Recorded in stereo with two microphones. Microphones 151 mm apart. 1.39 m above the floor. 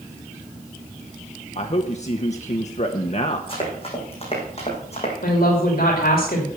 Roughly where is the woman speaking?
Left.